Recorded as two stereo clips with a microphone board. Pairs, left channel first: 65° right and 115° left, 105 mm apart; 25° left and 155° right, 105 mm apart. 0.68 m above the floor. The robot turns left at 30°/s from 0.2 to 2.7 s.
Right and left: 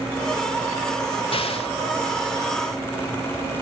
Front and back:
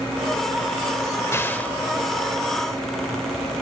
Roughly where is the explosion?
Ahead right.